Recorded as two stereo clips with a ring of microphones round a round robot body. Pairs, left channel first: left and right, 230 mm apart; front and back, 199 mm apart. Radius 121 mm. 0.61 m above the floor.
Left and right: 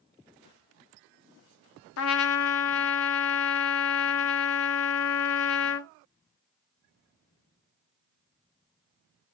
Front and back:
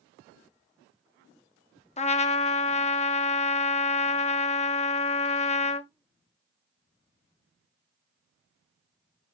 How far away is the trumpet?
About 0.7 m.